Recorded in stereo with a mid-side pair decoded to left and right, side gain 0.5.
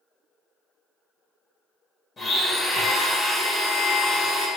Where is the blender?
35° left, 1.3 m.